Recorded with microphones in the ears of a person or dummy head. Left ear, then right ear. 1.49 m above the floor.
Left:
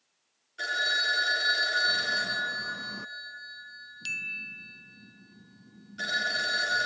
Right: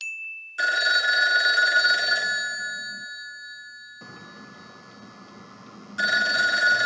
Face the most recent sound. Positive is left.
turn(degrees=-40)  # may be behind; listen again after turning